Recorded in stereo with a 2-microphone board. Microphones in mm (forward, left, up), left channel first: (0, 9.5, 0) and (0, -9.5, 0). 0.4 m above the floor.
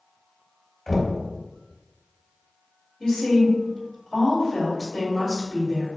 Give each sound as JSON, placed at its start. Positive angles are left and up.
{"t": 0.9, "sound": "knocking", "side_deg": 30, "distance_m": 1.1}
{"t": 3.0, "sound": "a woman speaking", "side_deg": 50, "distance_m": 1.6}